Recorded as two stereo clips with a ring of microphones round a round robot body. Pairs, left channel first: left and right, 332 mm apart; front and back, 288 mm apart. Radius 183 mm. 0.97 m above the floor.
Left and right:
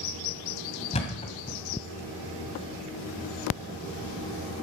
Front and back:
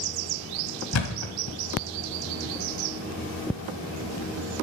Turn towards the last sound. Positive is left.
turn(degrees=20)